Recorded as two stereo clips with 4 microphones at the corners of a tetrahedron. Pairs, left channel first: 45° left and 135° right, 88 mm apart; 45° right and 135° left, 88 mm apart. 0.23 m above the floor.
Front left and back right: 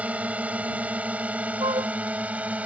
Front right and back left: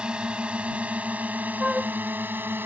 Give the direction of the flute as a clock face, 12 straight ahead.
5 o'clock.